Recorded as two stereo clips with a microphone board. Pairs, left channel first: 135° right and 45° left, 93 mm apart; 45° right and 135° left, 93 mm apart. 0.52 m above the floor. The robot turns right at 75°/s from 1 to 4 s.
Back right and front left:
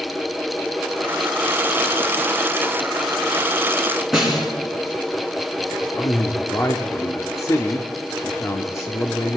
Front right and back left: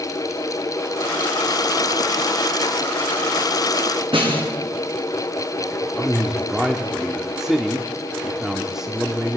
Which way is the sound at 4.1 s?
135° left.